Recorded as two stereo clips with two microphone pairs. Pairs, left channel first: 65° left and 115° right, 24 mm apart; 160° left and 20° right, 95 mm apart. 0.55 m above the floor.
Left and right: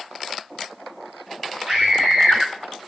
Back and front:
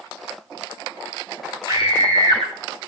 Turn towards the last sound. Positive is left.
turn(degrees=-55)